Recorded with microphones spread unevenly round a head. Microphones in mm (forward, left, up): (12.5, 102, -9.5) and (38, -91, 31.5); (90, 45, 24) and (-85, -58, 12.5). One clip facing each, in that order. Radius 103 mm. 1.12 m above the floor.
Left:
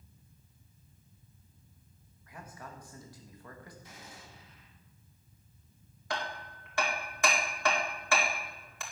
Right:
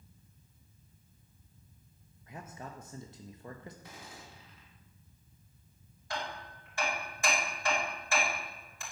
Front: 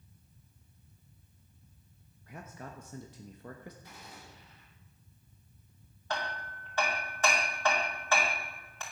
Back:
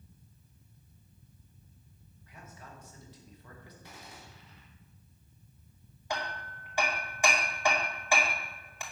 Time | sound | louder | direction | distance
2.3 | a man speaking | right 2 dB, front 6 dB | 15° right | 1.1 m
3.8 | a gunshot | right 1 dB, back 1 dB | 125° right | 3.5 m
6.1 | hammering | left 2 dB, even | 130° left | 2 m